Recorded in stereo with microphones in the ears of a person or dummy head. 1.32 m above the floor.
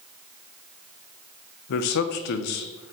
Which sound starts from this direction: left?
A man speaking, at 1.7 s.